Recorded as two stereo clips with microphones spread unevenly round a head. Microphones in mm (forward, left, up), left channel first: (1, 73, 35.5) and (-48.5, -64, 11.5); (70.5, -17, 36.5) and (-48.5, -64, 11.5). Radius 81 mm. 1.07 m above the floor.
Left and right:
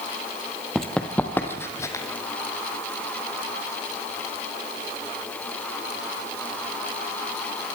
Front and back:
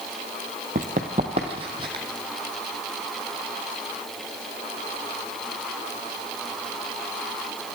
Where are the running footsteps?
155° left, 2 m; by 2.0 s 135° left, 3 m.